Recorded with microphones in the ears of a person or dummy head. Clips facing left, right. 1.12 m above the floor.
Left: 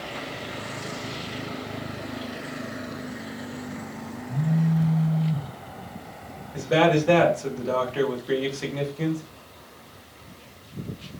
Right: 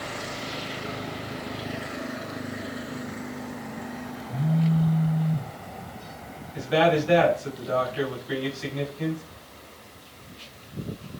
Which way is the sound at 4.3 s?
40° left (ahead or behind).